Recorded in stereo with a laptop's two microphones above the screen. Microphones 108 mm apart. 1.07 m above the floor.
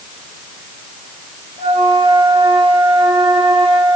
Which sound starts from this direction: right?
A flute, at 1.6 s.